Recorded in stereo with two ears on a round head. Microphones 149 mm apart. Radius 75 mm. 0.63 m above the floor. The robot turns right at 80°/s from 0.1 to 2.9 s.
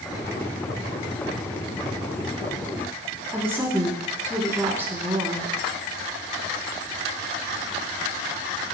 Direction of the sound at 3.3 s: 15° right (ahead or behind).